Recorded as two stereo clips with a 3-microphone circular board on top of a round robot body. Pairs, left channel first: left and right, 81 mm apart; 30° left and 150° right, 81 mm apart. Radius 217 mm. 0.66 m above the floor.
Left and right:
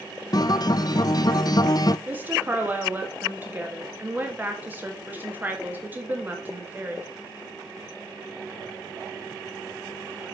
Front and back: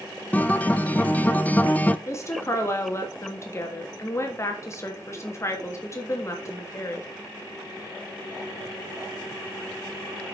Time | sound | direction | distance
0.3 | a guitar | 95° left | 0.6 m
2.1 | a woman speaking | 25° right | 1.7 m